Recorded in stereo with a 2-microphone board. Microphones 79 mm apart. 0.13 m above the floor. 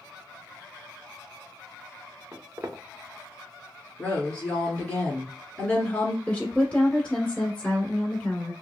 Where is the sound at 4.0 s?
20° left (ahead or behind), 1.7 m.